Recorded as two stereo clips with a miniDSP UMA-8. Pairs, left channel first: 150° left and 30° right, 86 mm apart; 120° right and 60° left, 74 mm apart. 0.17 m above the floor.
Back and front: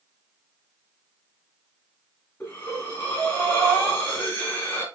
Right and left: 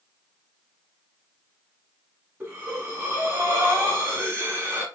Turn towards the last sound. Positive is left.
turn(degrees=95)